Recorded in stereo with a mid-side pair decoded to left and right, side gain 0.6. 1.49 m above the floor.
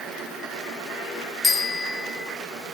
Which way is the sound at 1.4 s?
15° left.